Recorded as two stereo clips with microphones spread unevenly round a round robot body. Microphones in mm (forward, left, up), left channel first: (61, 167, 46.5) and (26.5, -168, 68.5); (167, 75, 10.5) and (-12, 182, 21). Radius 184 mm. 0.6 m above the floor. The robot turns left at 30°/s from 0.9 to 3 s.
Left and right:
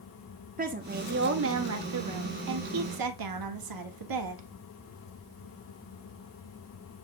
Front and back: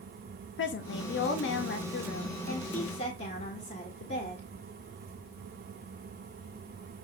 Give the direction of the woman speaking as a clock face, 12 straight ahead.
1 o'clock.